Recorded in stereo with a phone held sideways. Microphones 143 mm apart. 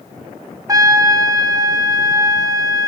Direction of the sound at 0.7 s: 25° right (ahead or behind).